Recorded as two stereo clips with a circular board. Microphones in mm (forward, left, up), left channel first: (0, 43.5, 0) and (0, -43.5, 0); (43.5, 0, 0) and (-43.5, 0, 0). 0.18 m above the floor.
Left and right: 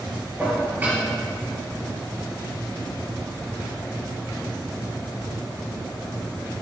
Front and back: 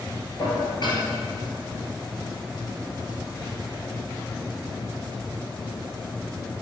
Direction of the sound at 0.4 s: 20° right.